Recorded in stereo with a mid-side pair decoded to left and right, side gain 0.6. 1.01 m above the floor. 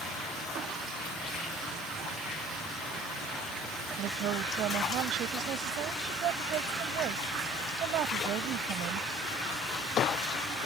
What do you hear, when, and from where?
4.0 s a woman speaking: 60° right